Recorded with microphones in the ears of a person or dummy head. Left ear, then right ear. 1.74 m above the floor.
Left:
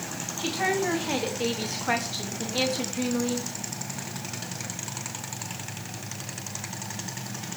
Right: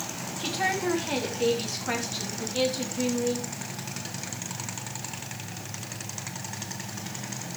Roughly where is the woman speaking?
Centre.